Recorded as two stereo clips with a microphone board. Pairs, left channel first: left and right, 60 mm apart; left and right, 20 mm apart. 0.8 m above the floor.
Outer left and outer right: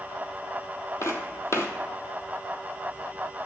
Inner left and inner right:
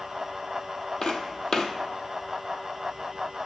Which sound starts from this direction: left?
Footsteps, at 1.0 s.